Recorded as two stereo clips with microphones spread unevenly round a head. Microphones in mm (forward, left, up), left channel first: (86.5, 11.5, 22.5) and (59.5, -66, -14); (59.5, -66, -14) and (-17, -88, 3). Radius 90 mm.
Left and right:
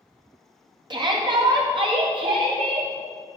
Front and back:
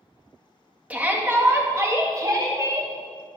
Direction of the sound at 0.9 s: 90° right.